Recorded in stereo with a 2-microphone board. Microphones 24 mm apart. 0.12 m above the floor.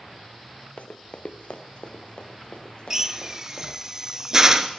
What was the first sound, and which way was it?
Running footsteps, 80° left.